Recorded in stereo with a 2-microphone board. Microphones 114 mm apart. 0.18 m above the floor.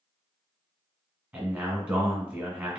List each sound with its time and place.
1.3 s a man speaking: 15° right (ahead or behind), 1.8 m